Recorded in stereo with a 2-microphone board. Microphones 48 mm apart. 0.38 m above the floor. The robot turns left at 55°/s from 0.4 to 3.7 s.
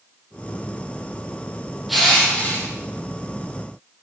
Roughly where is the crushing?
Behind.